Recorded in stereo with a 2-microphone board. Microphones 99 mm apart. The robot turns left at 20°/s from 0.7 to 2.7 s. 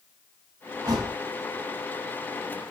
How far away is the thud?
About 1.2 m.